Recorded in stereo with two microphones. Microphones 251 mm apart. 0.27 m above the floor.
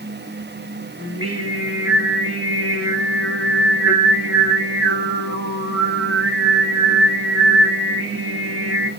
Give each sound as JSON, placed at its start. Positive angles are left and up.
{"t": 1.0, "sound": "singing", "side_deg": -60, "distance_m": 7.5}